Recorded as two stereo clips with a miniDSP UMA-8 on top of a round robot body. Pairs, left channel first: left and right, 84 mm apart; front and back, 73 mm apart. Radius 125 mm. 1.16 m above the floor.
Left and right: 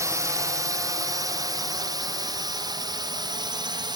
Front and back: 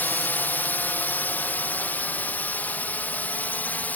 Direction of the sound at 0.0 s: 55° right.